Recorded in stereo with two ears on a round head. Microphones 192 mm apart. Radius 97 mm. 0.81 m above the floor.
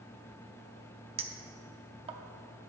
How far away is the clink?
About 0.6 m.